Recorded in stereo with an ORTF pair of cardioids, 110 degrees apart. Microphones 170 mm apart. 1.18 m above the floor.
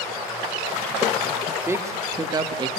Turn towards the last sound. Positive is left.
turn(degrees=-30)